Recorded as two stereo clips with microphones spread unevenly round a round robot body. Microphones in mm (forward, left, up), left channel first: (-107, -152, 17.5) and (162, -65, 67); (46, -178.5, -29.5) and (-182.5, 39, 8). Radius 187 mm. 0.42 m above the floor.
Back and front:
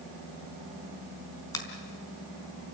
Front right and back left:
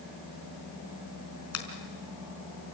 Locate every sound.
1.5 s a finger snap: 85° right, 4 m